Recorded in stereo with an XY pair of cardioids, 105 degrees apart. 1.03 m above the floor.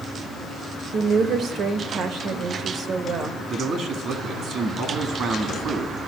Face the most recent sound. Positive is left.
turn(degrees=-65)